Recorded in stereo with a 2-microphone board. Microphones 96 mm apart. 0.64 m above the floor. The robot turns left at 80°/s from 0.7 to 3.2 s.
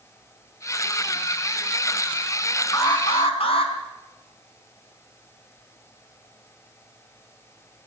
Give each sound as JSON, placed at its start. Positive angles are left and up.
{"t": 2.7, "sound": "an alarm", "azimuth_deg": 145, "distance_m": 4.0}